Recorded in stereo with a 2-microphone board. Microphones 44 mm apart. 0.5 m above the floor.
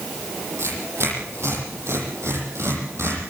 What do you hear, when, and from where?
0.6 s tearing paper: 85° right, 9.5 m